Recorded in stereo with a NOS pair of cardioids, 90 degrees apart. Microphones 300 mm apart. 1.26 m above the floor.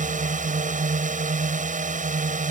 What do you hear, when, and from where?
0.0 s a drone: 25° right